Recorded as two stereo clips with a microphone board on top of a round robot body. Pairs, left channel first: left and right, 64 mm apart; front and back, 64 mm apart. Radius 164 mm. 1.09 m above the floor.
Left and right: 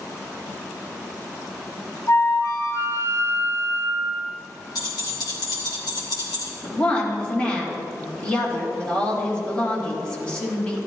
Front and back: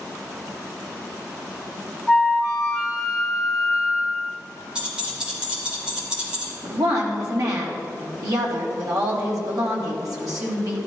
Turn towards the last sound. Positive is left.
turn(degrees=160)